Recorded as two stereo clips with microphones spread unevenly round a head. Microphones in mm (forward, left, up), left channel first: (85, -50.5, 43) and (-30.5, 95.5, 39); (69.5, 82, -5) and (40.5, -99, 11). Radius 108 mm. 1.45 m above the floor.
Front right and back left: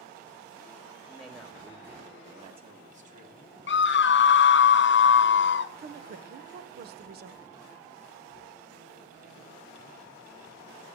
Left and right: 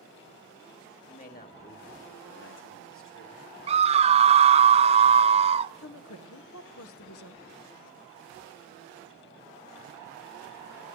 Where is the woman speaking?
90° left, 1.1 m.